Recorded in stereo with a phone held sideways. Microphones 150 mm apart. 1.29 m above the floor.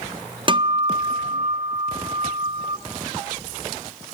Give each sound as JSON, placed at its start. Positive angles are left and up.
{"t": 0.5, "sound": "a guitar", "side_deg": -35, "distance_m": 0.7}